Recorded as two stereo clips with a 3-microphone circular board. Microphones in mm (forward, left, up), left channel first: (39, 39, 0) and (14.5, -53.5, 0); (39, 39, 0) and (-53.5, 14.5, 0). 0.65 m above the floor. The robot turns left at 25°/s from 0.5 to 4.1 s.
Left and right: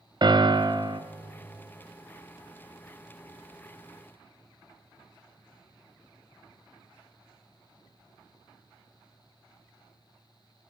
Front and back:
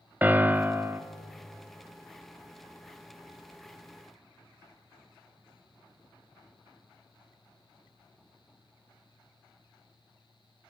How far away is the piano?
About 0.7 m.